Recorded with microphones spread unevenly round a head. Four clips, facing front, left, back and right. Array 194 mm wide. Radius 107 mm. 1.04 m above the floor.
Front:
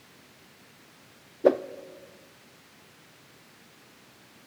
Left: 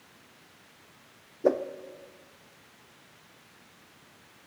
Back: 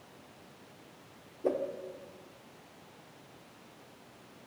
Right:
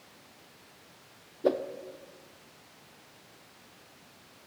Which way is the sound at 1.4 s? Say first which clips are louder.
Left 2 dB, front 10 dB; 15° left.